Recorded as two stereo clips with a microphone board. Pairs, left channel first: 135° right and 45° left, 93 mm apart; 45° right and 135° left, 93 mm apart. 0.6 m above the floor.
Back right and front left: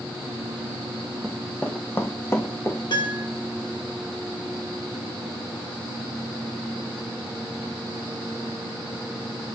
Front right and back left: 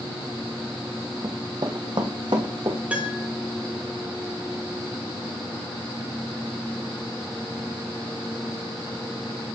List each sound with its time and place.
1.2 s running footsteps: 140° left, 0.7 m; by 2.8 s 170° left, 2 m
2.9 s a piano: 155° right, 1.1 m